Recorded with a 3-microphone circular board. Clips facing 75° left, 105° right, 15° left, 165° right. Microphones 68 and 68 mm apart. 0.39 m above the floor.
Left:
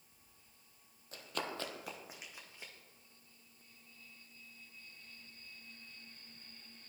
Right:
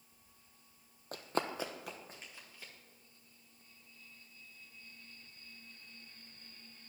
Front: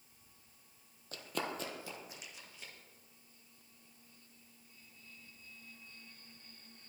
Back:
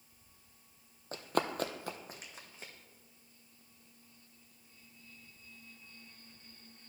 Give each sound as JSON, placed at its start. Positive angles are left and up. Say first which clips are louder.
{"t": 1.1, "sound": "running footsteps", "louder": "right 5 dB, back 6 dB", "azimuth_deg": -120, "distance_m": 0.7}